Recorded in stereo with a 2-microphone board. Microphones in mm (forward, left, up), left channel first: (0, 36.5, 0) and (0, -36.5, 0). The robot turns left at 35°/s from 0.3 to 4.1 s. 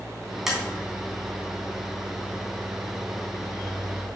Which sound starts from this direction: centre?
Tapping, at 0.5 s.